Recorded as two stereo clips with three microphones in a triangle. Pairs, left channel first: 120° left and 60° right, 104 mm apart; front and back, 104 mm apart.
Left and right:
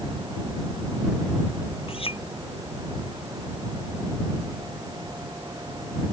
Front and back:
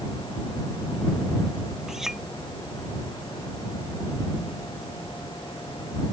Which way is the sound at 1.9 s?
95° left.